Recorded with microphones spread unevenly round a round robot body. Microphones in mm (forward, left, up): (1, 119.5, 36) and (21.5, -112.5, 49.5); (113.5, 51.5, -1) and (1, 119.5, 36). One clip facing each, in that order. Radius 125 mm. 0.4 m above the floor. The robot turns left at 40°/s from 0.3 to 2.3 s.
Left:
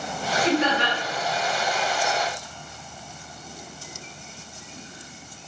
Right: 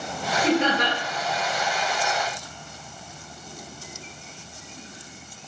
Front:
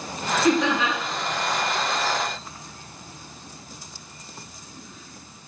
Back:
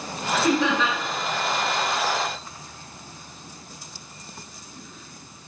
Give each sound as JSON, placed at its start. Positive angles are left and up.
{"t": 0.4, "sound": "laughter", "azimuth_deg": -125, "distance_m": 2.0}